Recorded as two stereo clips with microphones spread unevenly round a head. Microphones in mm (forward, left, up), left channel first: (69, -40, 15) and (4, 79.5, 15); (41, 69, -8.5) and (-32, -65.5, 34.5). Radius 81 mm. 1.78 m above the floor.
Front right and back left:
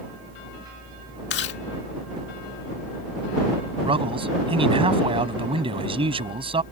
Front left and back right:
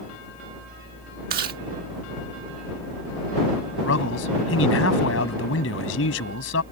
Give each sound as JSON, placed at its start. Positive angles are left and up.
{"t": 1.3, "sound": "chewing", "azimuth_deg": -90}
{"t": 3.8, "sound": "a man speaking", "azimuth_deg": 65}